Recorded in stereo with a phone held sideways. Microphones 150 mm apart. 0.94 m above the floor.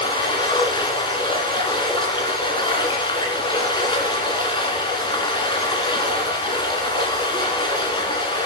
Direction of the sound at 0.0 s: 30° left (ahead or behind).